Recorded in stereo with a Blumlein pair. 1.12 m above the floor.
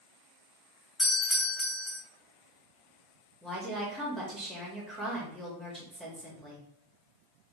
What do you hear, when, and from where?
1.0 s a doorbell: 15° left, 1.6 m
3.4 s a woman speaking: 10° right, 1.3 m